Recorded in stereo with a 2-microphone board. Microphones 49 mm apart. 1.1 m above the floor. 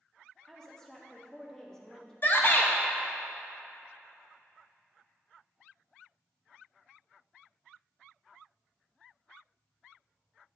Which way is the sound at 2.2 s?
40° left (ahead or behind).